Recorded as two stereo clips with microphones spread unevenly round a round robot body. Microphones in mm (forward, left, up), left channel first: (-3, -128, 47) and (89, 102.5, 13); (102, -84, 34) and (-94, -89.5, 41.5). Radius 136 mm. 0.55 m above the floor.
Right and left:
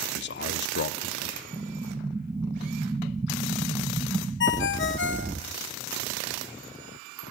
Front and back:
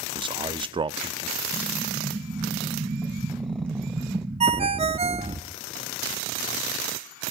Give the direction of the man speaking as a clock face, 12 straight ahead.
4 o'clock.